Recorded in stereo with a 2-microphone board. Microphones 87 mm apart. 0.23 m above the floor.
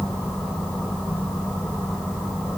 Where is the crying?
I don't hear crying.